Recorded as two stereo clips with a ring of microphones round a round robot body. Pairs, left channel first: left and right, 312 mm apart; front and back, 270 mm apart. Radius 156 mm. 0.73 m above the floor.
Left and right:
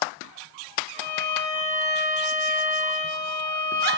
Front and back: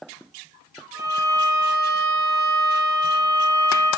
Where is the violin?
140° right, 1.0 m.